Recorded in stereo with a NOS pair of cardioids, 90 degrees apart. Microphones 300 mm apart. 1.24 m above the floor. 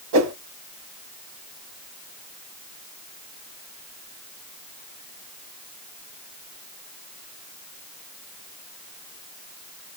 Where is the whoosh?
65° right, 1.0 m.